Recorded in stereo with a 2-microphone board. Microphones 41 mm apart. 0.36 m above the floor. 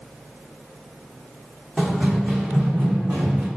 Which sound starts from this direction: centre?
Running footsteps, at 1.8 s.